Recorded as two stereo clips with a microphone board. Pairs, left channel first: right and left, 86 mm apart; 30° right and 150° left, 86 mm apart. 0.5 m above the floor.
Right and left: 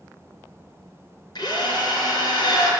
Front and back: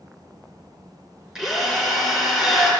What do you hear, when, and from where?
1.4 s a drill: 125° right, 3.5 m